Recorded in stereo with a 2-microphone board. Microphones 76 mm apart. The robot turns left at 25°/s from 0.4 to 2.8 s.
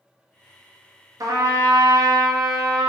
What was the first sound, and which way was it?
A trumpet, 55° right.